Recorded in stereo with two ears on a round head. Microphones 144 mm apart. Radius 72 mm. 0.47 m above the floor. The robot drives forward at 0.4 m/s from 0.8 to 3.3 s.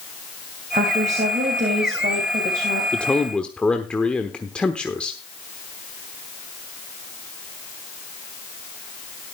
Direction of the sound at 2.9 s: 5° left (ahead or behind).